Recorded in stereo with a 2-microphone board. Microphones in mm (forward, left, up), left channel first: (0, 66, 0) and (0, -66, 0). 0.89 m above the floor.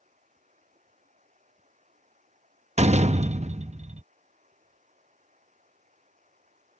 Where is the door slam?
60° right (ahead or behind).